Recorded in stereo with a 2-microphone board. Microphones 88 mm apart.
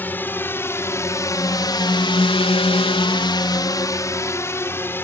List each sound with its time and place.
0.0 s a drone: 20° left (ahead or behind)